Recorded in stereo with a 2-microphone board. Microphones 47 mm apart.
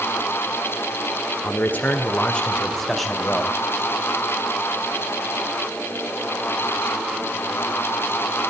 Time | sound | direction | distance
1.4 | a man speaking | 50° left (ahead or behind) | 1.9 m